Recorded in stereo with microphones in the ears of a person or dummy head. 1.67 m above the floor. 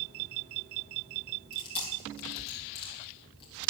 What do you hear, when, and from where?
1.5 s chewing: 30° left (ahead or behind), 4 m